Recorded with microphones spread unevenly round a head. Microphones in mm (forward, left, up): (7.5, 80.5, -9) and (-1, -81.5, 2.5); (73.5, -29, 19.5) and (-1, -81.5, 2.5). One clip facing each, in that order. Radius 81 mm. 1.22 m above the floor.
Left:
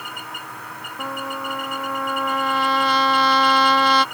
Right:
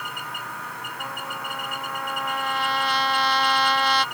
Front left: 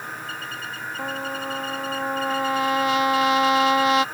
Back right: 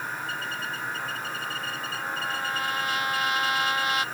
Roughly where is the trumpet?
Left.